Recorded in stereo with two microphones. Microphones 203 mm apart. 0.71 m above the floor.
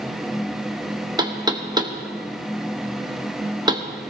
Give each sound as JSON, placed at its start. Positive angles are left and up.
{"t": 1.2, "sound": "knocking", "side_deg": -20, "distance_m": 0.9}